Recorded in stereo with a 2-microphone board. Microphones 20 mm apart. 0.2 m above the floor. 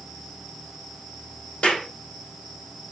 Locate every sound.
1.6 s a clap: 75° left (ahead or behind), 5.5 m